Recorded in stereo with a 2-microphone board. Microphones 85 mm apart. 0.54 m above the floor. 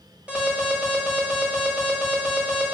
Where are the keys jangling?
No keys jangling in this recording.